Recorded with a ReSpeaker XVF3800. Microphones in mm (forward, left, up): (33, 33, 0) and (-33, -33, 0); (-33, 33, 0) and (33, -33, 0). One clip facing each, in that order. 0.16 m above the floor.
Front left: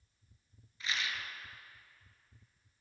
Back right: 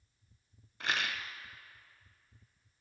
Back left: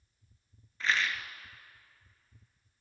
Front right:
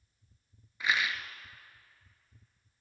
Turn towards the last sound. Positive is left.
turn(degrees=-125)